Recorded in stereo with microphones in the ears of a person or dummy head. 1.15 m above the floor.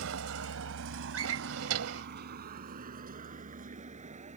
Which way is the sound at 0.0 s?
75° right (ahead or behind).